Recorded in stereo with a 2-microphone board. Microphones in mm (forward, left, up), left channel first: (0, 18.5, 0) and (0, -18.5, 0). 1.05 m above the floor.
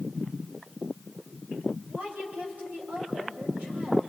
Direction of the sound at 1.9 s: 55° right (ahead or behind).